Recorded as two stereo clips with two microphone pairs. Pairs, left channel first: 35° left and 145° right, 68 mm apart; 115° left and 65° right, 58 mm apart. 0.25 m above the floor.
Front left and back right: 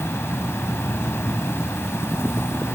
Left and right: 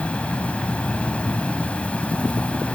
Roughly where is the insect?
Ahead left.